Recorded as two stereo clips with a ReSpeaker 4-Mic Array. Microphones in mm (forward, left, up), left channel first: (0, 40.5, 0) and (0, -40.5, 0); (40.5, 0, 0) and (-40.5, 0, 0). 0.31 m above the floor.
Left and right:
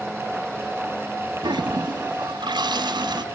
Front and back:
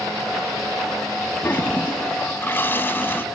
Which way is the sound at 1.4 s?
65° right.